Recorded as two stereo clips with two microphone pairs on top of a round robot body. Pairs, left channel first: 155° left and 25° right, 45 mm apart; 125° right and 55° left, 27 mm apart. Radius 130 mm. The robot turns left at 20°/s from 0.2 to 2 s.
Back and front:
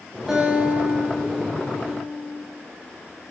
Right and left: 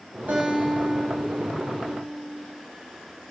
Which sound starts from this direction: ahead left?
A guitar, at 0.3 s.